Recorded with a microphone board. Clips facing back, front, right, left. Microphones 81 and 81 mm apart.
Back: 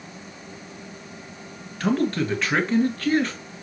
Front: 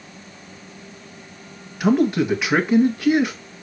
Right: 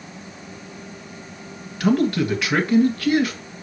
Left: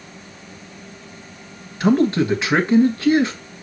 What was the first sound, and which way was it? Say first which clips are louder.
A man speaking: front 5 dB, left 3 dB; 65° left.